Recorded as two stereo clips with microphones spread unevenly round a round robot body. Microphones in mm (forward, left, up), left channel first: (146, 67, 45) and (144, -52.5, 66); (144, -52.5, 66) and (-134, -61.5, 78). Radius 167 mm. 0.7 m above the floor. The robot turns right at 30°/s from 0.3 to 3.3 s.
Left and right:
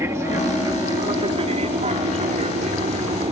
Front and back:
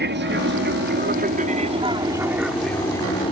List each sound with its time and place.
0.0 s an aircraft: 160° right; by 3.3 s 65° right